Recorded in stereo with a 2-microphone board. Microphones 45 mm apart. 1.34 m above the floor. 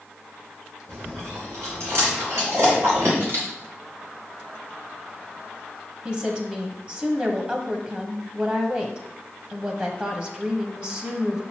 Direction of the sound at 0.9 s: 80° right.